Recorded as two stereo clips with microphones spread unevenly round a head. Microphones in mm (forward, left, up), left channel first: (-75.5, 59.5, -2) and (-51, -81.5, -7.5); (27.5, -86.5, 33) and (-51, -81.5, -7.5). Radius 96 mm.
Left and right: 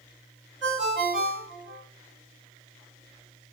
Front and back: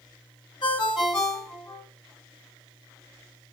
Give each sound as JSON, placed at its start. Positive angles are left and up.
{"t": 0.6, "sound": "a ringtone", "azimuth_deg": 5, "distance_m": 4.0}